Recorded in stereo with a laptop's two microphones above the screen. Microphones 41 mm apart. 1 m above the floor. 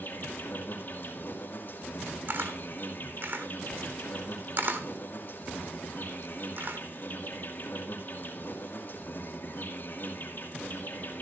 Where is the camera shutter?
55° right (ahead or behind), 1.4 m.